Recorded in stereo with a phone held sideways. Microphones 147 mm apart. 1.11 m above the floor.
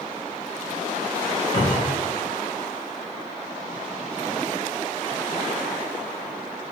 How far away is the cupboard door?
About 1.6 m.